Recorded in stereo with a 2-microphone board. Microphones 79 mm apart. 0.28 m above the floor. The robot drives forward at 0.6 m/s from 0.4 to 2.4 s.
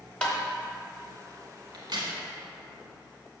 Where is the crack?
65° right (ahead or behind), 1.5 m; by 2.1 s 70° right (ahead or behind), 1.4 m.